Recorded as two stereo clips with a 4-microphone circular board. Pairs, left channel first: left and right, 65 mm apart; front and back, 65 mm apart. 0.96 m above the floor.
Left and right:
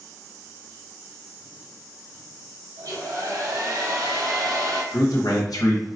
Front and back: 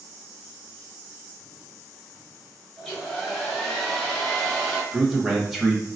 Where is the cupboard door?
No cupboard door in this recording.